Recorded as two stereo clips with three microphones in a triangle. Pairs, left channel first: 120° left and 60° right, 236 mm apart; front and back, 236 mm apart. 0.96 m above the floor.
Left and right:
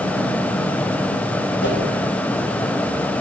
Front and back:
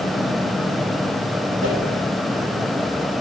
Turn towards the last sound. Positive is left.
turn(degrees=150)